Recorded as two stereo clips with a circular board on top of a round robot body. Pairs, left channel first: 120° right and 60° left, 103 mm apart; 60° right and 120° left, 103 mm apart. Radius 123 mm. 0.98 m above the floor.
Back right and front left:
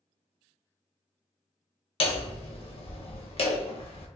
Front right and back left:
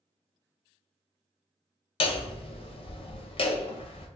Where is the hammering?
90° right, 0.7 m.